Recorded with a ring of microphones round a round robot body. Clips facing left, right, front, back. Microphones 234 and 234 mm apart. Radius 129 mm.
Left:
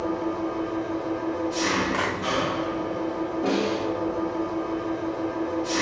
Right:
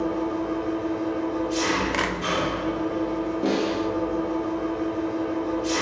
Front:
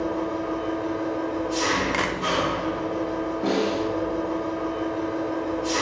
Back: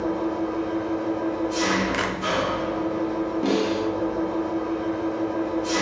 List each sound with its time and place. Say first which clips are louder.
0.0 s an engine running: right 1 dB, back 2 dB; 115° right, 2.5 m
1.9 s a clap: right 1 dB, even; 100° right, 0.5 m
3.4 s a snare drum: right 1 dB, even; 150° right, 1.1 m